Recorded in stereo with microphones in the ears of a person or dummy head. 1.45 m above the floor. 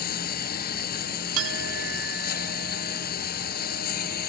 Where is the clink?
85° right.